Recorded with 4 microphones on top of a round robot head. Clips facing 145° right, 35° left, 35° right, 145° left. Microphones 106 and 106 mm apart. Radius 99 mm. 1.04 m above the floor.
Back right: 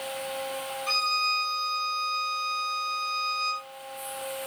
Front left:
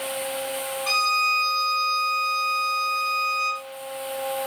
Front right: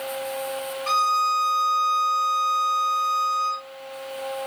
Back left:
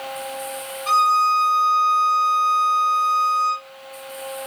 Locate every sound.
0.9 s a violin: 55° left, 3 m